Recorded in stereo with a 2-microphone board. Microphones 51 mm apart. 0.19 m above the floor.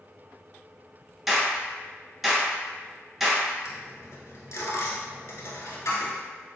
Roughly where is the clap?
Centre.